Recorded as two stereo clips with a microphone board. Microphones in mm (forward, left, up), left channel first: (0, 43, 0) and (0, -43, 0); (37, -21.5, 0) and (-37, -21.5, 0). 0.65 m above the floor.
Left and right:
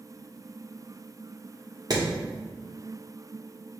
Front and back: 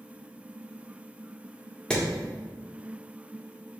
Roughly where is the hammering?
Right.